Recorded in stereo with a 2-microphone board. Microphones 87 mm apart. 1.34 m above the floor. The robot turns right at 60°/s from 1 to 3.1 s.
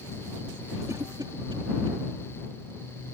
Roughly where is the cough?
Right.